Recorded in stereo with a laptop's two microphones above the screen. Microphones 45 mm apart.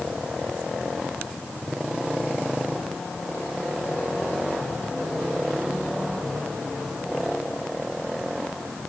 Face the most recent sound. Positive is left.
No sound to turn to.